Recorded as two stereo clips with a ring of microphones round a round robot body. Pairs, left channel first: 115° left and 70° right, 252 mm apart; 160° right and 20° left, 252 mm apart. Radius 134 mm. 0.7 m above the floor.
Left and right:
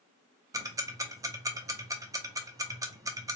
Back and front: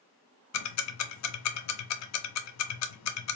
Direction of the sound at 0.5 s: 145° right.